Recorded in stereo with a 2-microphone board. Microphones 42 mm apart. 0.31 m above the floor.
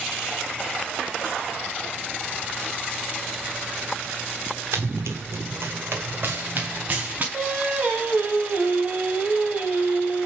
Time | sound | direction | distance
4.7 | running footsteps | 70° right (ahead or behind) | 1.2 m
7.3 | singing | 35° right (ahead or behind) | 1.8 m